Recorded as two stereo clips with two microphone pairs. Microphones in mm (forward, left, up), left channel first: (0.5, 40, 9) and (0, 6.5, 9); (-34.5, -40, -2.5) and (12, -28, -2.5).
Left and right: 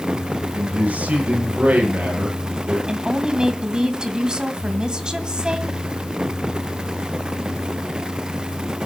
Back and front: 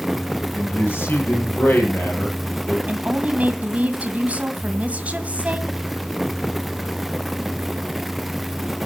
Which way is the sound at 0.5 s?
125° right.